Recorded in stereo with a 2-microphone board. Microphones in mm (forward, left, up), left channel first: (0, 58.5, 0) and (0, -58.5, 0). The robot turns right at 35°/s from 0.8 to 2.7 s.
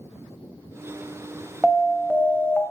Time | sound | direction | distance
1.6 | an alarm | 5° right (ahead or behind) | 0.9 m